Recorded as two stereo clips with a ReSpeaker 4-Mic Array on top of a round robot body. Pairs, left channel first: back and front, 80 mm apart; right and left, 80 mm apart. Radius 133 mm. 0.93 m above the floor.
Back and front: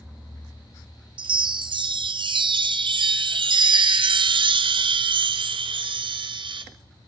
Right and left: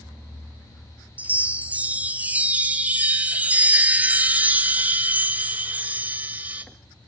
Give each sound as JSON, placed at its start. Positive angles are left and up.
{"t": 1.2, "sound": "a chime", "azimuth_deg": 15, "distance_m": 0.7}